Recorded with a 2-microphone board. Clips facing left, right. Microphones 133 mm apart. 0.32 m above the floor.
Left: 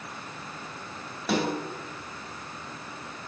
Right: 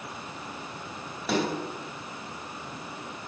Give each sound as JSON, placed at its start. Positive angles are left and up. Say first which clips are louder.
{"t": 1.3, "sound": "a snare drum", "louder": "even", "side_deg": 0, "distance_m": 2.5}